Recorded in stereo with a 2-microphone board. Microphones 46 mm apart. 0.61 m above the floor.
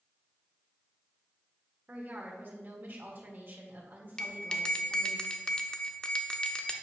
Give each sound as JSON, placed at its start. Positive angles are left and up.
{"t": 1.9, "sound": "a woman speaking", "side_deg": -45, "distance_m": 1.4}
{"t": 4.2, "sound": "a bell", "side_deg": 20, "distance_m": 0.6}